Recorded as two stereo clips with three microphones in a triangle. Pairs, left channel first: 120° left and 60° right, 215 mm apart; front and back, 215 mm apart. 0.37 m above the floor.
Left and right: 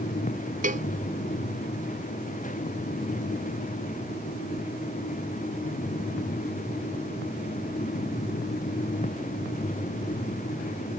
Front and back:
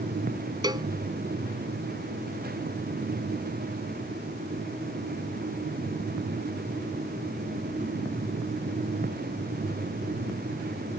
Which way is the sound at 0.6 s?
110° right.